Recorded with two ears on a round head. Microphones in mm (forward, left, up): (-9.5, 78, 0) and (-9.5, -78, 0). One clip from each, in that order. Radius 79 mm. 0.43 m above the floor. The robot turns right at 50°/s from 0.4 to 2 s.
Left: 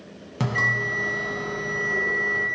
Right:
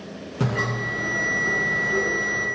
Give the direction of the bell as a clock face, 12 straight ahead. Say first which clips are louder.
Left 4 dB; 9 o'clock.